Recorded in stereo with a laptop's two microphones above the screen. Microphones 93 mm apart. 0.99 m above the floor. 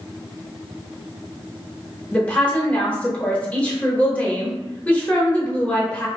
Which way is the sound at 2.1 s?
15° left (ahead or behind).